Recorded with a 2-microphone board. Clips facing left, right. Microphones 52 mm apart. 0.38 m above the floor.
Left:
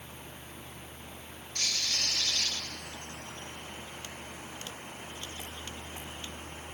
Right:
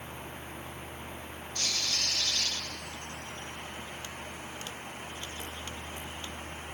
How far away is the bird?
About 1.7 m.